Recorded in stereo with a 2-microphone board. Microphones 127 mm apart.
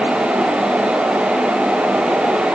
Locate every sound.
Only background noise.